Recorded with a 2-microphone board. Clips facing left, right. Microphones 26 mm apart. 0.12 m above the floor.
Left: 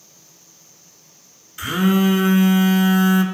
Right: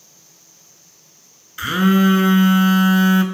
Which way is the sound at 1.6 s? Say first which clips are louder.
Right 2 dB; 20° right (ahead or behind).